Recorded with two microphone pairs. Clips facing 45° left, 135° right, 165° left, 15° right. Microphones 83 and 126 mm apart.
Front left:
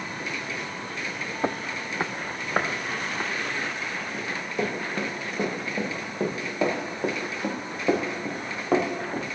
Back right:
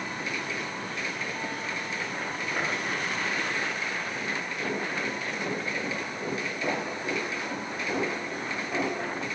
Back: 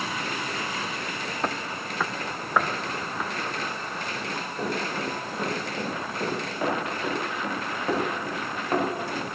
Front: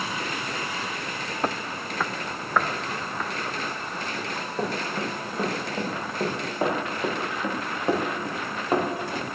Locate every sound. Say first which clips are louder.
1.4 s footsteps: front left 4 dB, front 2 dB; 65° left, 0.6 m; by 3.3 s 85° left, 3 m
4.1 s running footsteps: front left 3 dB, front 5 dB; 45° left, 8 m; by 9.2 s 60° left, 4 m